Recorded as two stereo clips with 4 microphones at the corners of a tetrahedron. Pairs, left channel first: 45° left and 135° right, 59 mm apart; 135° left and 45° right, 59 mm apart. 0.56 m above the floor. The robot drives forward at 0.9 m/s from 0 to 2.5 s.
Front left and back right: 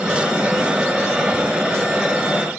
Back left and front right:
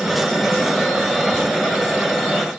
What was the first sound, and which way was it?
Only background noise.